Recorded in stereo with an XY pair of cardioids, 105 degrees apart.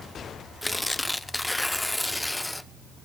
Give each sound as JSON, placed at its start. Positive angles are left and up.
{"t": 0.6, "sound": "tearing paper", "azimuth_deg": 10, "distance_m": 0.8}